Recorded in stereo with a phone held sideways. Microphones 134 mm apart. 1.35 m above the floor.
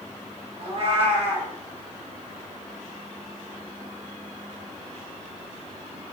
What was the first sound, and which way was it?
A cat meowing, 45° right (ahead or behind).